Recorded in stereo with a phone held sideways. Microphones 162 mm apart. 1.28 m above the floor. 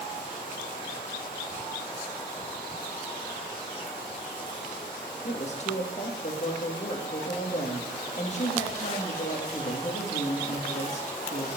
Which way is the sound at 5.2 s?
45° left (ahead or behind).